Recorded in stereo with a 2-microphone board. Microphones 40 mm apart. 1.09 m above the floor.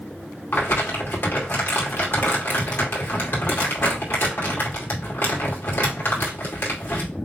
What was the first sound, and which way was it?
Crumpling, 55° left (ahead or behind).